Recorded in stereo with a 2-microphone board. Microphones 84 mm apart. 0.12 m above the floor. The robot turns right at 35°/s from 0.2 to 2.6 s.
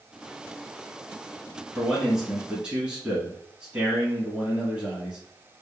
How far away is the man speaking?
About 1.3 m.